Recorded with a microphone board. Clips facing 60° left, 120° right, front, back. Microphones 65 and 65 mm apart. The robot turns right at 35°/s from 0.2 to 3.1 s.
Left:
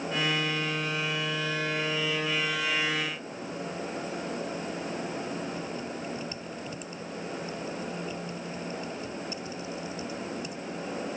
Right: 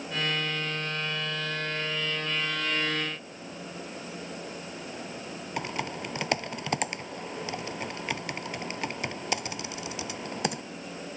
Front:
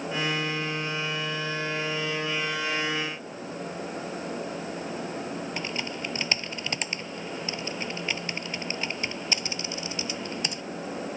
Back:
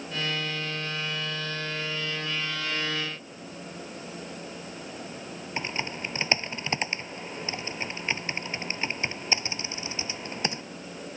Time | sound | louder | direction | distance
5.6 | typing on a keyboard | right 2 dB, even | 120° right | ?